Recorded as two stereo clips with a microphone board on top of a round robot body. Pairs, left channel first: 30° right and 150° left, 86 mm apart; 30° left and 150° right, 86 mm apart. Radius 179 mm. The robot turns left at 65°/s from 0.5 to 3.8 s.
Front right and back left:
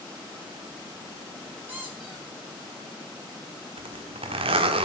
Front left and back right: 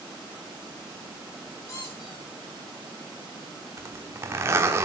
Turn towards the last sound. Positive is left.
turn(degrees=150)